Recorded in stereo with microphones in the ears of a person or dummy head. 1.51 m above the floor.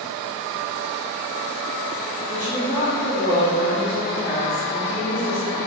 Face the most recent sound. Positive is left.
turn(degrees=20)  # may be behind; listen again after turning